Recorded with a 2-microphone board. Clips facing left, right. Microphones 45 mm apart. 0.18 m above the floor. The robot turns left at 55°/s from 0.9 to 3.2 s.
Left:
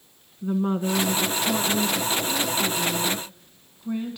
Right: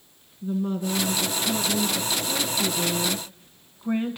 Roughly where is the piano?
No piano in this recording.